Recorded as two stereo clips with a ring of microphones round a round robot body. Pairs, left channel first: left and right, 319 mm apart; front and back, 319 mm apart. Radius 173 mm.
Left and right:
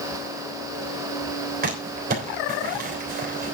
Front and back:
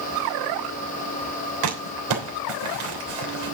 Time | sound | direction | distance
1.6 | crumpling | 155° right | 3 m